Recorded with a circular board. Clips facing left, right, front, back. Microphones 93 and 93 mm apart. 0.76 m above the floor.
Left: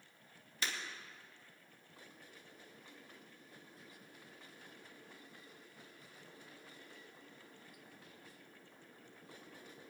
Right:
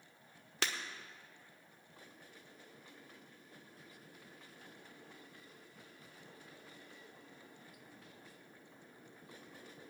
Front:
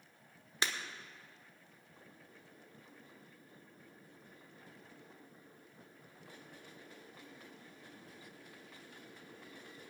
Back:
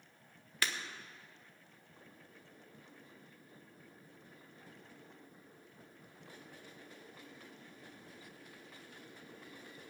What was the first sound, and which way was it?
Breaking glass, 65° right.